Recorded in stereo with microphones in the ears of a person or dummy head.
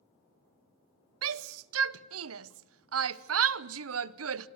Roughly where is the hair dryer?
I don't hear a hair dryer.